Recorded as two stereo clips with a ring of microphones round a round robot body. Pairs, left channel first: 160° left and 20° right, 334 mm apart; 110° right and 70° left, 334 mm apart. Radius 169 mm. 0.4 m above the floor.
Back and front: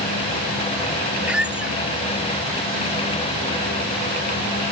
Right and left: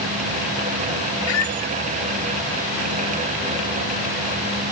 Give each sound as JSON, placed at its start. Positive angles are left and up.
{"t": 1.3, "sound": "a squeak", "azimuth_deg": -110}